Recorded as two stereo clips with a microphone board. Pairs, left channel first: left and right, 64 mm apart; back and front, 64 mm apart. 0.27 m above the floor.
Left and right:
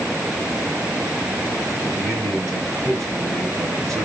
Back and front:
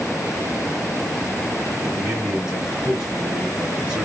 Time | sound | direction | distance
1.9 | a man speaking | 75° right | 3 m